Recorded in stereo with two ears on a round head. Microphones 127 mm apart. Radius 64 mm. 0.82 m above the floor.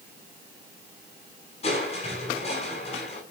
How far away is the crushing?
About 7 m.